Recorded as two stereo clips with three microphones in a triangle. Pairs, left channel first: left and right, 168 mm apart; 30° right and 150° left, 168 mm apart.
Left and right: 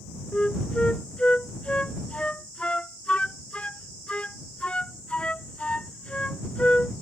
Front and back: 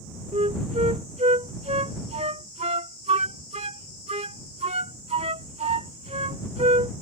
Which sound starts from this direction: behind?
A flute, at 0.3 s.